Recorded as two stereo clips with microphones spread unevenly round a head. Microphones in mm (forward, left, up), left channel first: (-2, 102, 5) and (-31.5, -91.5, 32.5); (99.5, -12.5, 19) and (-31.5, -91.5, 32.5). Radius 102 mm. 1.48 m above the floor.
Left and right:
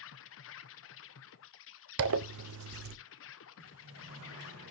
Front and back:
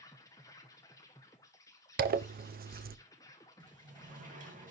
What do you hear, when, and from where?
0.0 s an insect: 105° left, 0.8 m
2.0 s a zipper: 120° right, 0.7 m
3.6 s a sliding door: 110° right, 2.5 m